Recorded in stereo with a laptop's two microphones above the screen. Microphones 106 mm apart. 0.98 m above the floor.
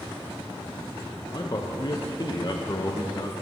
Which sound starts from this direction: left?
A man speaking, at 1.3 s.